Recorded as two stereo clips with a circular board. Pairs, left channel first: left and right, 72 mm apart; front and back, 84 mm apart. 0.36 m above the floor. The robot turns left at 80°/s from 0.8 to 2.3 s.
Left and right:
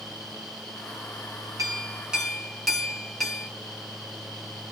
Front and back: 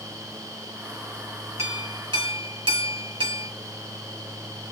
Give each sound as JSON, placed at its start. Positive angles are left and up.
{"t": 1.6, "sound": "a clink", "azimuth_deg": -125, "distance_m": 2.5}